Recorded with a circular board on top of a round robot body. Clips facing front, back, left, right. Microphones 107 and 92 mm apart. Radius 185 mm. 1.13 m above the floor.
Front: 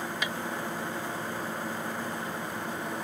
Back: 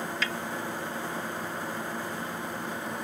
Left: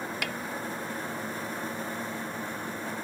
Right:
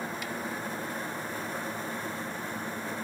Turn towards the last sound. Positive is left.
turn(degrees=75)